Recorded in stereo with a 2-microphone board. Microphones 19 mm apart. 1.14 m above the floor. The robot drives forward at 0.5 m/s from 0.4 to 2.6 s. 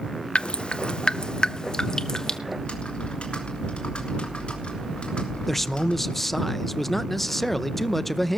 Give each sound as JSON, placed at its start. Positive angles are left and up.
{"t": 0.3, "sound": "dripping", "side_deg": 60, "distance_m": 0.6}
{"t": 2.5, "sound": "typing on a keyboard", "side_deg": 80, "distance_m": 3.0}
{"t": 5.5, "sound": "a man speaking", "side_deg": 20, "distance_m": 0.7}